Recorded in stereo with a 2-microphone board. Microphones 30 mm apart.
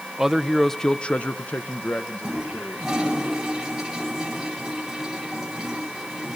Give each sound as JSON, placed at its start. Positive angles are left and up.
{"t": 0.2, "sound": "a man speaking", "side_deg": -15, "distance_m": 0.8}
{"t": 2.2, "sound": "a toilet flushing", "side_deg": -15, "distance_m": 9.0}